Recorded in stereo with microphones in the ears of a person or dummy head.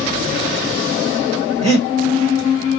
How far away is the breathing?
About 1.2 m.